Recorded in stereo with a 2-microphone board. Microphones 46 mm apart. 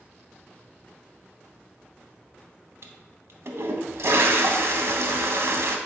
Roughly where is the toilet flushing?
Right.